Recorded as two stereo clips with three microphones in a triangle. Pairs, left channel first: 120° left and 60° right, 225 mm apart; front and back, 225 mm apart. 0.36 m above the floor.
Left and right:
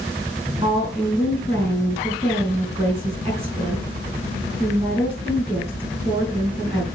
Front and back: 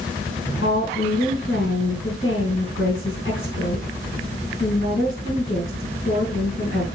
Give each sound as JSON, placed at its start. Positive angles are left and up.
{"t": 0.6, "sound": "a woman speaking", "azimuth_deg": 0, "distance_m": 4.0}